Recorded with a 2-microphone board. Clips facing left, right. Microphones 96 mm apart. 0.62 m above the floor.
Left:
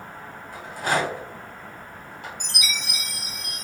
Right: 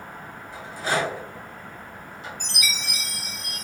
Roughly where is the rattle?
Left.